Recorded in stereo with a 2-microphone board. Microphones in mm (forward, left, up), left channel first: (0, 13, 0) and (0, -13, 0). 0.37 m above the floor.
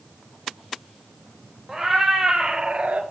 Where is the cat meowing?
20° right (ahead or behind), 1.9 m; by 3.0 s 70° right (ahead or behind), 0.7 m.